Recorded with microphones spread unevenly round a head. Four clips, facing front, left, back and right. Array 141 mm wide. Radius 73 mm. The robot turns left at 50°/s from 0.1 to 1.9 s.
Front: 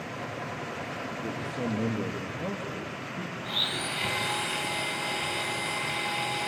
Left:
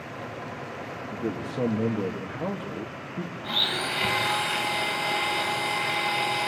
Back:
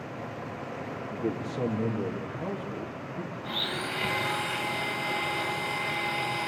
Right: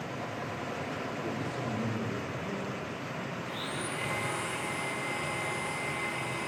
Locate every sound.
1.1 s a man speaking: 125° left, 2 m; by 3.3 s 85° left, 2 m
3.4 s a blender: 95° left, 2.5 m